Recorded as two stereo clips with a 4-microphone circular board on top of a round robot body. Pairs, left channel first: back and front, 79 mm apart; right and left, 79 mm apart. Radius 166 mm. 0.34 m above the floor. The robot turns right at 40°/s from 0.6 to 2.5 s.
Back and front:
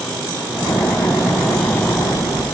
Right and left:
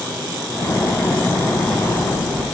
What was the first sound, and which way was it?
Only background noise.